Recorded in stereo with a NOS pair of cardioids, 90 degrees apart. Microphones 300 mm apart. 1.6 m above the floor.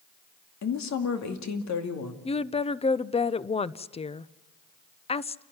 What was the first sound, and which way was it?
A woman speaking, 65° left.